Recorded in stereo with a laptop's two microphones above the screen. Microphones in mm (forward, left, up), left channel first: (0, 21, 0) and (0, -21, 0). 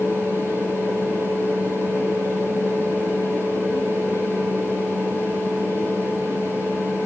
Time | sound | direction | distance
0.0 | a fan | 75° right (ahead or behind) | 9.5 m